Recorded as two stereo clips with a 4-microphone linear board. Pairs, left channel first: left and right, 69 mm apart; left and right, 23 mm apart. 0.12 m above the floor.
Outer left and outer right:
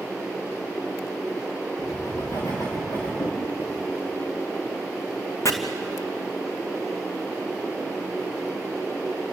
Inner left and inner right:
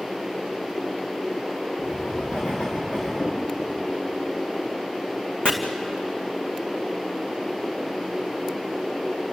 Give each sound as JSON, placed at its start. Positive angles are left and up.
{"t": 1.8, "sound": "writing", "side_deg": 50, "distance_m": 9.5}
{"t": 3.2, "sound": "knocking", "side_deg": 60, "distance_m": 5.0}
{"t": 5.5, "sound": "chopping", "side_deg": 50, "distance_m": 2.5}